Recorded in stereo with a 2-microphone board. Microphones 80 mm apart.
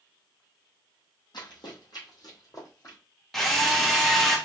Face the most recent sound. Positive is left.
turn(degrees=0)  # may be behind; listen again after turning